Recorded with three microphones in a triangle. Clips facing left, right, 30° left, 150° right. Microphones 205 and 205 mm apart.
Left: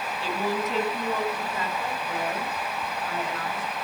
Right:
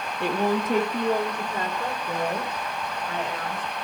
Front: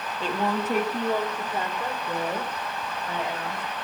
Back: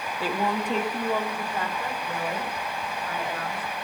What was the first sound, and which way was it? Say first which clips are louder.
A woman speaking: right 5 dB, even; 70° right.